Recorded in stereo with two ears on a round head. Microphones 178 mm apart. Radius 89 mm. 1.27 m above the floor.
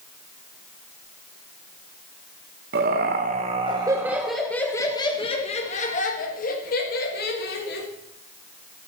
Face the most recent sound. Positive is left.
turn(degrees=55)  # may be behind; listen again after turning